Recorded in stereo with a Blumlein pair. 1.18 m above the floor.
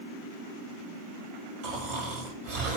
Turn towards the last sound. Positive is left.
turn(degrees=-50)